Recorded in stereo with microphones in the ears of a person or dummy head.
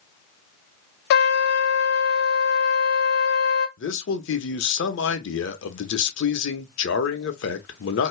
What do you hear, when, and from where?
1.1 s a trumpet: 60° left (ahead or behind), 0.6 m
3.8 s a man speaking: 70° left (ahead or behind), 0.9 m